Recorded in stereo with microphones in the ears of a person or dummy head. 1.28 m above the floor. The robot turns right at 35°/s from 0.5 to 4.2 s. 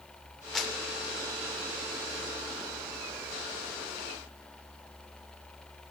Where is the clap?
5° left (ahead or behind), 3 m; by 0.8 s 5° right (ahead or behind), 3 m.